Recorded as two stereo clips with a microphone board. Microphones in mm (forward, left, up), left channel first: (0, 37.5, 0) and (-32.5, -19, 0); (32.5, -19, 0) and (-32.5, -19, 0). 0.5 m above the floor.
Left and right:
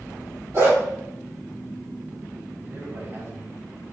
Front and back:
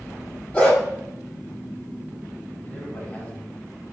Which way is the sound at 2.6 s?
70° right.